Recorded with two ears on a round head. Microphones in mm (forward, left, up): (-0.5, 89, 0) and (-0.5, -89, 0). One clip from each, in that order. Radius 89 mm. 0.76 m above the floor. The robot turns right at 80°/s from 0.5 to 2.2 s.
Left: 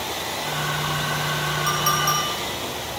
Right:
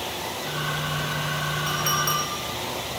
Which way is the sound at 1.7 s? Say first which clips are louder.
Left 3 dB; 25° left (ahead or behind).